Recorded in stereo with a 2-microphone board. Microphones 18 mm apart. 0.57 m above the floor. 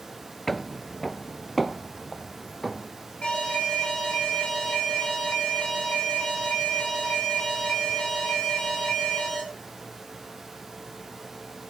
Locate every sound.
0.5 s footsteps: 10° left (ahead or behind), 0.5 m; by 2.9 s centre (ahead or behind), 1.5 m
3.2 s an alarm: 80° left, 5.5 m